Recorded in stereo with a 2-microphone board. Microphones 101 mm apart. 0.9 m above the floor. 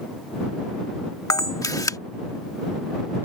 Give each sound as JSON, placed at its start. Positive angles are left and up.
{"t": 1.3, "sound": "a camera shutter", "side_deg": 35}